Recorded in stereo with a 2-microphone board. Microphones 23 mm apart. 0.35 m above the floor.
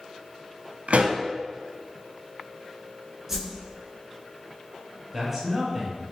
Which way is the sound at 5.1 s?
10° right (ahead or behind).